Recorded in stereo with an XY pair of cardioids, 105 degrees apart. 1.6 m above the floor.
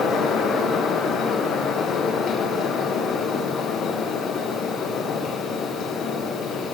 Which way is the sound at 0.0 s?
65° left.